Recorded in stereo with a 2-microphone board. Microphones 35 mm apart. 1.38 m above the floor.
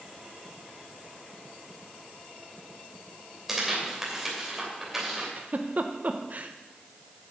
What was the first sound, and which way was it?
Tearing paper, 10° right (ahead or behind).